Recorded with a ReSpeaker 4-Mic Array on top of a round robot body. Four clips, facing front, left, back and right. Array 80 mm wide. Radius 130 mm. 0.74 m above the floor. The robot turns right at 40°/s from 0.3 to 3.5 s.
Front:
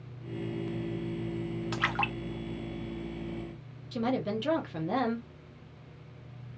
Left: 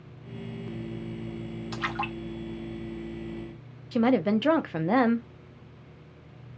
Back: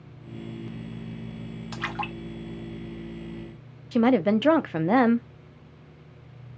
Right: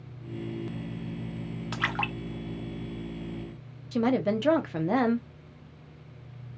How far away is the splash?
About 0.9 m.